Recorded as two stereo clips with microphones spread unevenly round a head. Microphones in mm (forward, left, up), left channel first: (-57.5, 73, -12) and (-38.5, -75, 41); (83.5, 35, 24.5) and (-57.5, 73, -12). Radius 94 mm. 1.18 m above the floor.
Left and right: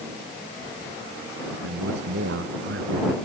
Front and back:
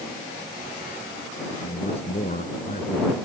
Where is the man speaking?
75° right.